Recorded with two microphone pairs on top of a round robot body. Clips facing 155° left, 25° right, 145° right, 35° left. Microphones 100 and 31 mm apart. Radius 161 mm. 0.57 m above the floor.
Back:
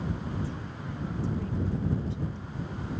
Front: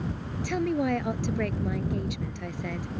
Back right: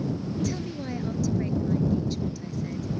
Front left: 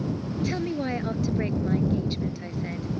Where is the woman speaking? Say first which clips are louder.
Front 12 dB, front left 4 dB; 25° right.